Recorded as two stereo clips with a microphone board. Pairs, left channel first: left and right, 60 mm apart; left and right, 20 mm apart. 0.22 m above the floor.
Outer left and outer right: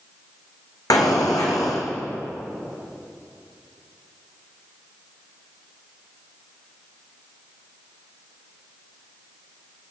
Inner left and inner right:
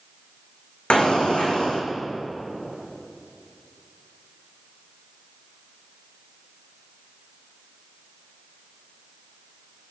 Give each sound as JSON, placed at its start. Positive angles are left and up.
{"t": 0.9, "sound": "an explosion", "side_deg": 80, "distance_m": 2.0}